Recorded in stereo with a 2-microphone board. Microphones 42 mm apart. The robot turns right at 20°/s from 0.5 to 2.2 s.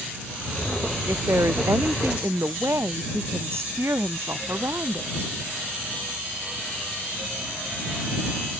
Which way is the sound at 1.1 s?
85° right.